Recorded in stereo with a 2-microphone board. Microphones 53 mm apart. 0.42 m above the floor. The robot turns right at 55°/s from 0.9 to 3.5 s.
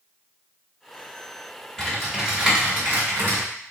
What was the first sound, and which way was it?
Typing on a keyboard, 170° left.